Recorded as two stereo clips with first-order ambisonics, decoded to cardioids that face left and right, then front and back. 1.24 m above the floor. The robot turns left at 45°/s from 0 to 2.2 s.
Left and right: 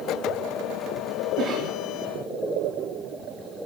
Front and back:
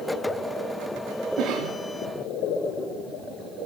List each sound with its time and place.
1.4 s a cough: 140° right, 3.5 m; by 1.7 s 155° right, 3.5 m